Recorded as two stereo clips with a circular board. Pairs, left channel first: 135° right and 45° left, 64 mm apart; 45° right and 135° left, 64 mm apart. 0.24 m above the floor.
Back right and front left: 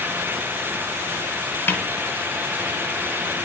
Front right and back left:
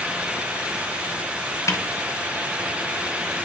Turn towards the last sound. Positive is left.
turn(degrees=-80)